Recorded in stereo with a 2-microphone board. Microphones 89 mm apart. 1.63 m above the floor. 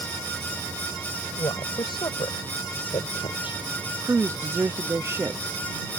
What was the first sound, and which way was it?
A woman speaking, 65° left (ahead or behind).